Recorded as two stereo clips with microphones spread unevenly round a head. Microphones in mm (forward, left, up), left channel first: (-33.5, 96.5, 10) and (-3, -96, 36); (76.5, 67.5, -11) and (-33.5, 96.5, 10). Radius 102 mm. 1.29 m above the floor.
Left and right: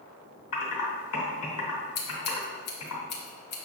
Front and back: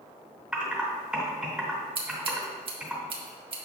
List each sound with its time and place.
0.5 s typing on a keyboard: 85° left, 3 m
1.9 s scissors: 140° left, 1.6 m